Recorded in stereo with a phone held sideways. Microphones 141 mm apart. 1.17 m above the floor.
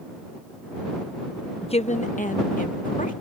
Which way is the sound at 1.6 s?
35° left (ahead or behind).